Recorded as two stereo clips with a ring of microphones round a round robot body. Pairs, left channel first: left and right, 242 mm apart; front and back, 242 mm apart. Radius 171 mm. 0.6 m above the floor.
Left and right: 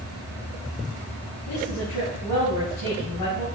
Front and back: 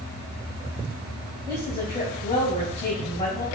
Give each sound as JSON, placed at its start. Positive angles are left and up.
{"t": 1.5, "sound": "a woman speaking", "azimuth_deg": 65, "distance_m": 4.0}